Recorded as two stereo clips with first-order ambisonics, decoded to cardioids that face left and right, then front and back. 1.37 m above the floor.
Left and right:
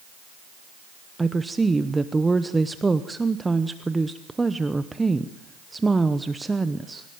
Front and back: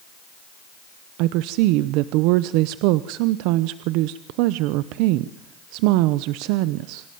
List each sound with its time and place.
1.2 s a woman speaking: 170° right, 0.9 m